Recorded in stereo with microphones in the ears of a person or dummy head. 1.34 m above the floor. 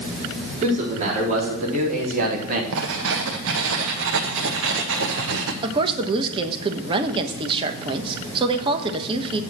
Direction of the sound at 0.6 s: 40° right (ahead or behind).